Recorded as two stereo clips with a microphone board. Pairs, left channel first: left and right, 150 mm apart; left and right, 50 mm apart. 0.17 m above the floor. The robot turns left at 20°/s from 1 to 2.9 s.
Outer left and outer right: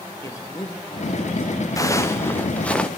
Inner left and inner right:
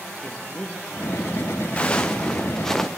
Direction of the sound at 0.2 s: 20° left (ahead or behind).